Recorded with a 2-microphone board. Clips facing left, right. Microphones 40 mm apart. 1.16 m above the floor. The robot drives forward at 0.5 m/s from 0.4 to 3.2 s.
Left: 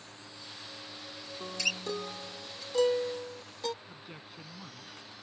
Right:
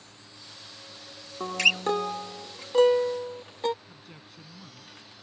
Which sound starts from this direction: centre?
A man speaking, at 3.8 s.